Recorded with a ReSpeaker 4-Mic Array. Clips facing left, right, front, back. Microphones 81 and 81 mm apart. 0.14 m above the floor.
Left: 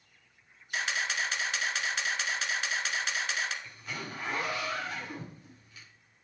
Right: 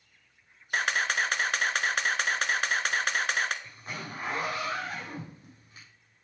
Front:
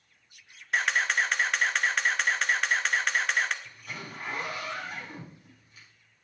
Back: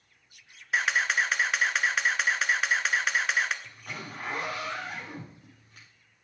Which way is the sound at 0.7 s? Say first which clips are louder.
Right 5 dB, even; 95° right.